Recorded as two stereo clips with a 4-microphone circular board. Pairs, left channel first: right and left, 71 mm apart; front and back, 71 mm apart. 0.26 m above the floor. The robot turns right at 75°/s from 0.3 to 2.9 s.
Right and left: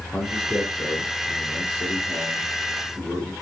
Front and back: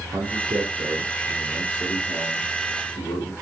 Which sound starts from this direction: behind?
A man speaking, at 0.1 s.